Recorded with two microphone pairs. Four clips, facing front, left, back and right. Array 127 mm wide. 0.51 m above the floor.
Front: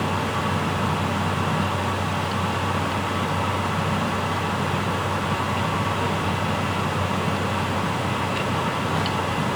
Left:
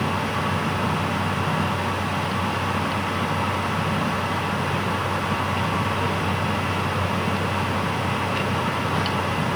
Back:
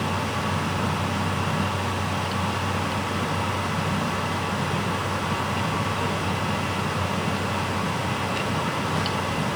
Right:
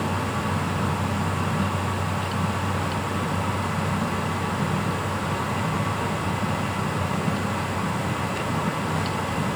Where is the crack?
I don't hear a crack.